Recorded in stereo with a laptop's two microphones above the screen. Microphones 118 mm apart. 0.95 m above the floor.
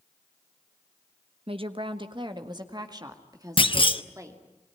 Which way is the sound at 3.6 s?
45° left (ahead or behind).